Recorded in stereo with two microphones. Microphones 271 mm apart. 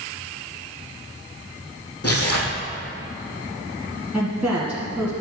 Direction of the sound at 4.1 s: 5° right (ahead or behind).